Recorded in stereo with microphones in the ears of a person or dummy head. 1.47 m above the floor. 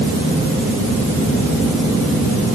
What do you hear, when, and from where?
Only background noise.